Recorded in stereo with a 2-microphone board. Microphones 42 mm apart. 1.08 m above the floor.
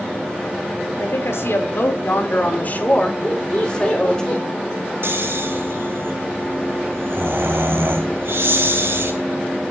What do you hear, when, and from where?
1.0 s a woman speaking: 85° left, 3.5 m; by 4.2 s 15° left (ahead or behind), 4.5 m
3.2 s laughter: 30° left (ahead or behind), 3.5 m
5.0 s snoring: 70° right (ahead or behind), 3.5 m